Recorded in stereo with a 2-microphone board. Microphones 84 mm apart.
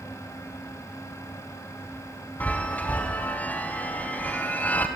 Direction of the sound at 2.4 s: 20° left (ahead or behind).